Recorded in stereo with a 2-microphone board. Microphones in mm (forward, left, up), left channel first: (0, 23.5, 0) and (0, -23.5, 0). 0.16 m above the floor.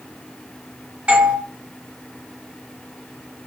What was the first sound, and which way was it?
A doorbell, 35° right (ahead or behind).